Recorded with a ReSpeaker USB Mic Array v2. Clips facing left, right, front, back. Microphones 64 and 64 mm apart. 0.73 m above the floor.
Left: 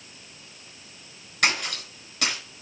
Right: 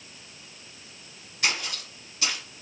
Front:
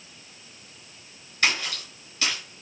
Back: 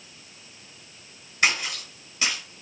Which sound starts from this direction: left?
A splash, at 1.4 s.